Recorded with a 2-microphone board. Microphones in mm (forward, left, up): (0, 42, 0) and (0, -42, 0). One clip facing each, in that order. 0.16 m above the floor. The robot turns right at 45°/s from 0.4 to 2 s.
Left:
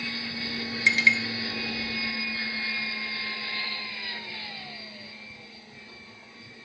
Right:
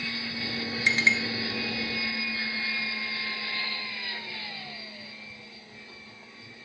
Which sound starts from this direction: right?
A clink, at 0.9 s.